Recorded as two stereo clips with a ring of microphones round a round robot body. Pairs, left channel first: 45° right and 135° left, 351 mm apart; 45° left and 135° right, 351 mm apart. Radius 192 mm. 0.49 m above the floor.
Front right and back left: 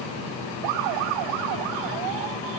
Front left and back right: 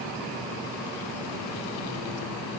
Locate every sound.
Only background noise.